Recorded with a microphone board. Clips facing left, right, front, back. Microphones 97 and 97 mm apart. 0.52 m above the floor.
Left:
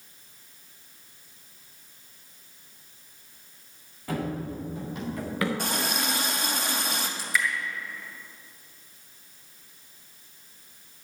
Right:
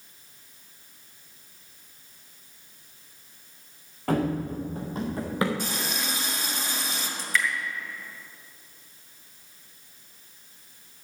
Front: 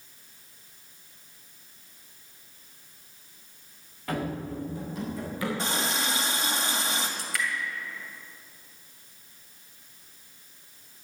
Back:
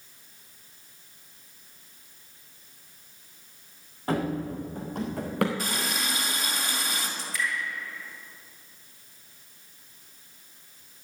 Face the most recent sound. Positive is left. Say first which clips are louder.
# right 2 dB, even
turn(degrees=5)